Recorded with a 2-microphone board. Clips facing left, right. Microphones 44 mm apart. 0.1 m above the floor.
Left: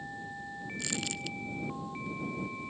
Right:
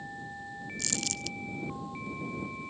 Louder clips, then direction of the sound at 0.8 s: Left 1 dB; 15° left (ahead or behind).